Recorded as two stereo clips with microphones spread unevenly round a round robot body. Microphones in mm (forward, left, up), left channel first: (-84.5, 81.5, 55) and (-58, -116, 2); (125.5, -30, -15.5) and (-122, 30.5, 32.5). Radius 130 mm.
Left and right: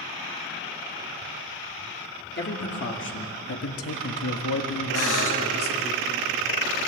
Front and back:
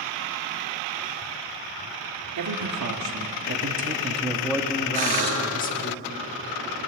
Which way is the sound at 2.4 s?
140° left.